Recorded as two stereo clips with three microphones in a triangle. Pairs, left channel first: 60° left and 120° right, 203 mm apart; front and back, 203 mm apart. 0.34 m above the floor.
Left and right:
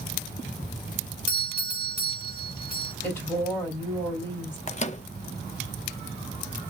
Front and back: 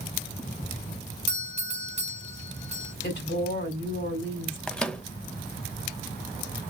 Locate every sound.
1.3 s a doorbell: 150° right, 1.5 m
3.0 s a woman speaking: 15° right, 2.5 m
4.7 s a microwave: 85° left, 0.8 m